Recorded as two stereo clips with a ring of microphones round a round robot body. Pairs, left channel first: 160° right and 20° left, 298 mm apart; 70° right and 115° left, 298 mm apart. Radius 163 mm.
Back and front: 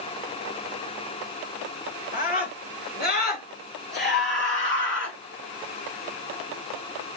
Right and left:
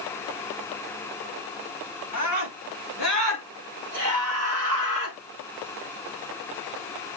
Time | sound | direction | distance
2.1 | a scream | 140° left | 6 m